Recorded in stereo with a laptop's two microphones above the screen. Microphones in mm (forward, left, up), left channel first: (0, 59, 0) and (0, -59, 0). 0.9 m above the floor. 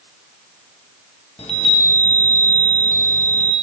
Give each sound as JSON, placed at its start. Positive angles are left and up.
{"t": 1.4, "sound": "a chime", "side_deg": 55, "distance_m": 0.6}